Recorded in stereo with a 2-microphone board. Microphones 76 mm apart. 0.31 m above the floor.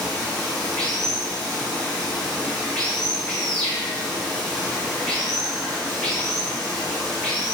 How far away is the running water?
About 1.4 m.